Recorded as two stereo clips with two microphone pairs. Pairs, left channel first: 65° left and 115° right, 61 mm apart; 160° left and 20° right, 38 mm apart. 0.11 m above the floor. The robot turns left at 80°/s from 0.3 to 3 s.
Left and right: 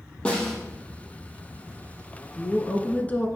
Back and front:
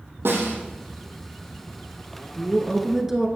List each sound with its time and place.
0.2 s a snare drum: 10° right, 3 m; by 0.6 s 30° right, 3 m
2.4 s a woman speaking: 105° left, 1.2 m; by 3.3 s 55° left, 1.2 m